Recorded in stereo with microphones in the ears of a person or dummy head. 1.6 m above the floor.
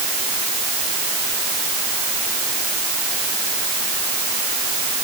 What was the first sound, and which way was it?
Only background noise.